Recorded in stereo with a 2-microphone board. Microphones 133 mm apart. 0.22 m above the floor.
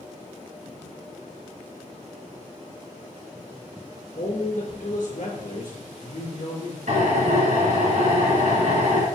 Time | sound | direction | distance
4.2 | a man speaking | 60° left (ahead or behind) | 3 m
6.9 | a drill | 65° right (ahead or behind) | 3 m